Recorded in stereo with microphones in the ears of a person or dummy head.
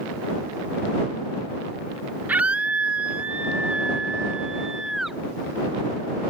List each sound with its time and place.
2.3 s a scream: 10° right (ahead or behind); by 5.2 s 5° right (ahead or behind)